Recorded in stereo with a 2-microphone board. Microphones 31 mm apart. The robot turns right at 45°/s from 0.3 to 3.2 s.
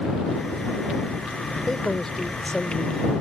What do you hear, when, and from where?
1.7 s a man speaking: 10° left (ahead or behind); by 3.1 s 25° left (ahead or behind)